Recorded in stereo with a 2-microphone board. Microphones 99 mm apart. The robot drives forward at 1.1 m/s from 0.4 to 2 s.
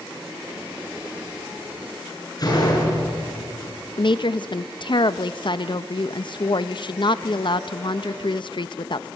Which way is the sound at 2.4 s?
40° left (ahead or behind).